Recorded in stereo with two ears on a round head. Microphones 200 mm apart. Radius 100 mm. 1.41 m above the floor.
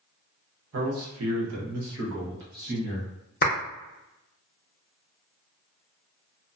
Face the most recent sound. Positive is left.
turn(degrees=40)  # may be behind; listen again after turning